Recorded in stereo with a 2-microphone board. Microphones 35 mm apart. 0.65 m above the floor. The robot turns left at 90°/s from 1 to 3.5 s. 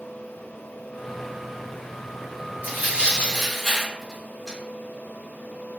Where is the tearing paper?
65° right (ahead or behind), 1.6 m; by 4.6 s 5° right (ahead or behind), 1.6 m.